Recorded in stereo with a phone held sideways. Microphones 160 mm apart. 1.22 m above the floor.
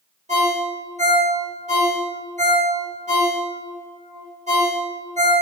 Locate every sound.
0.3 s a ringtone: 45° right (ahead or behind), 1.1 m